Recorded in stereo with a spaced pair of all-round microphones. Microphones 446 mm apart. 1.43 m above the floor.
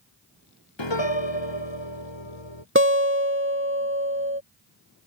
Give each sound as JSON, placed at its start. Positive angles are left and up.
{"t": 0.8, "sound": "a piano", "side_deg": 75}
{"t": 2.8, "sound": "a guitar", "side_deg": -25}